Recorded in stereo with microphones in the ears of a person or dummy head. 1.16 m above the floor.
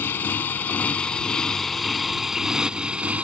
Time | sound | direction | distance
0.0 | a motorcycle | 10° left (ahead or behind) | ?